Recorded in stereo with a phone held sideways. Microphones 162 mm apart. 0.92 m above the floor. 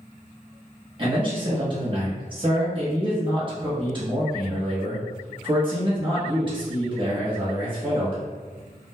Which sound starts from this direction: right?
A man speaking, at 1.0 s.